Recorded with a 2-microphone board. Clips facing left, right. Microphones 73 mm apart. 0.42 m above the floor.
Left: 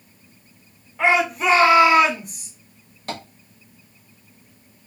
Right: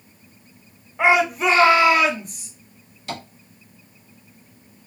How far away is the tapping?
About 1.3 m.